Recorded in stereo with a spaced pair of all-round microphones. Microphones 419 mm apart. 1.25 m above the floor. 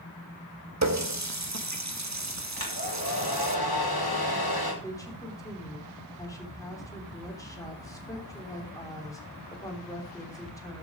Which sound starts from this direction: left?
A hair dryer, at 2.6 s.